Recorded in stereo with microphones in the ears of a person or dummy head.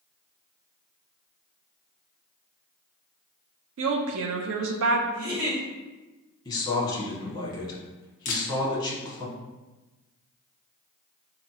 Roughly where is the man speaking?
Centre.